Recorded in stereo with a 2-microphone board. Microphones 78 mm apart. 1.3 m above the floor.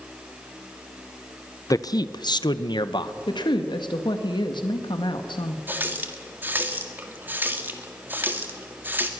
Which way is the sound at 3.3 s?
80° left.